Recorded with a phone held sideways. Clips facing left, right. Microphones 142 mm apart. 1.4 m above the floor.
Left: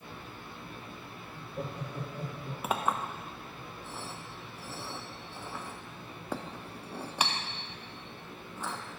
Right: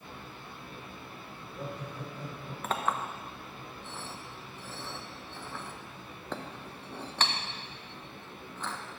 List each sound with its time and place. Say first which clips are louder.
1.3 s laughter: left 2 dB; 65° left (ahead or behind), 2.5 m; by 2.5 s 70° left (ahead or behind), 3.5 m
2.6 s a clink: left 1 dB; 10° left (ahead or behind), 0.5 m